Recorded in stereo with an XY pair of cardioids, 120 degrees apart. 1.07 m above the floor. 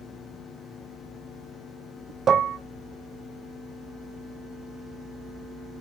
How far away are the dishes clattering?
About 0.7 m.